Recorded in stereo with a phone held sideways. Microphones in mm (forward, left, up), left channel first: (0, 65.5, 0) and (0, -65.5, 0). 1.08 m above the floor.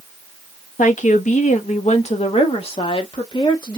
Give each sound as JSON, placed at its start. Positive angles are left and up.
{"t": 0.8, "sound": "a woman speaking", "side_deg": 85, "distance_m": 1.1}